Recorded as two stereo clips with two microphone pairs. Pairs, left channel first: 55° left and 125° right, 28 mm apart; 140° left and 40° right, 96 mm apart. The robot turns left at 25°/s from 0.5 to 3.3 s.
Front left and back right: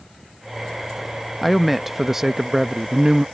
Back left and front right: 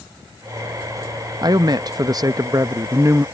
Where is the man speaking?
40° right; by 3.2 s 90° right.